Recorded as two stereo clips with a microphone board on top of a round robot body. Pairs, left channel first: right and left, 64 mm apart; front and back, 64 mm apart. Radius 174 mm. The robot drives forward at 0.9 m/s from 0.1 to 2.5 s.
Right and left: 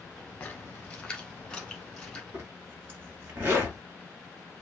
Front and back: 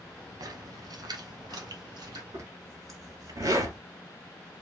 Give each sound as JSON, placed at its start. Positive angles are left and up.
{"t": 0.4, "sound": "a splash", "azimuth_deg": -160, "distance_m": 1.0}
{"t": 2.3, "sound": "a zipper", "azimuth_deg": 150, "distance_m": 1.9}